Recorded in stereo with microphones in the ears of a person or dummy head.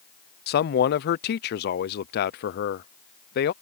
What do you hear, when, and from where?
0.5 s a man speaking: 55° left (ahead or behind)